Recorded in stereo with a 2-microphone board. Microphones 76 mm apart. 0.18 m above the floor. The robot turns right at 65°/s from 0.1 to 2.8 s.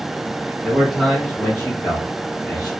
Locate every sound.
0.6 s a man speaking: 20° right, 1.6 m; by 2.7 s 115° left, 1.6 m